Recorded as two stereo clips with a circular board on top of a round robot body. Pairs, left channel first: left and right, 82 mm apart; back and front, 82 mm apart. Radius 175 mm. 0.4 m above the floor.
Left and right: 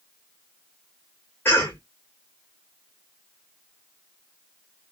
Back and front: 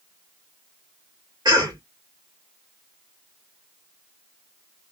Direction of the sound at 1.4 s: 30° left.